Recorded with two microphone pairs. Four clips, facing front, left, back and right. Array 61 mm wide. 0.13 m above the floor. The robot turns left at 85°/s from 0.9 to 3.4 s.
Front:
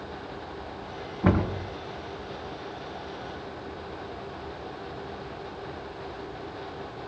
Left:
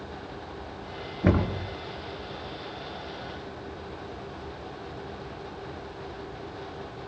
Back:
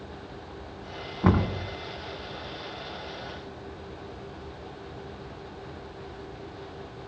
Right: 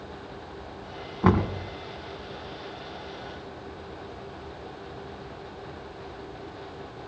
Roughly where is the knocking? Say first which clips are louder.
Right 2 dB, even; right.